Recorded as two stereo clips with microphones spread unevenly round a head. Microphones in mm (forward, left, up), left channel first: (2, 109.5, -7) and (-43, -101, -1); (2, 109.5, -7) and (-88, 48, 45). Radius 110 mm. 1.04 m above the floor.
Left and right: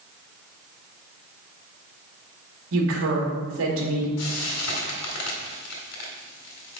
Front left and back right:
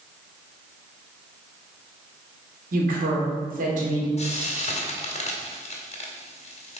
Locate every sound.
2.7 s a woman speaking: 125° right, 2.5 m
4.2 s frying: 65° left, 2.0 m